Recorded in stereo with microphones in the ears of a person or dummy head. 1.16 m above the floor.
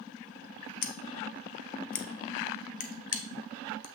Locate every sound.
0.8 s scissors: 45° left (ahead or behind), 0.6 m